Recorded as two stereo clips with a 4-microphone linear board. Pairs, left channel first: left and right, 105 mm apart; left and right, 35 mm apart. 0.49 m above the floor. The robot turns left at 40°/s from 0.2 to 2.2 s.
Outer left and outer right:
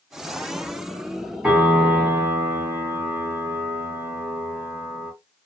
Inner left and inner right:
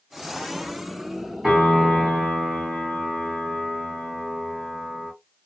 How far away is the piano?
About 1.5 m.